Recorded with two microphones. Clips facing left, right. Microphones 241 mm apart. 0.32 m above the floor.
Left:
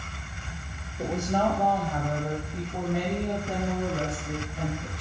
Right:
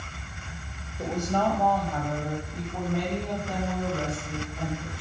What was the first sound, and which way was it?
A woman speaking, 10° left (ahead or behind).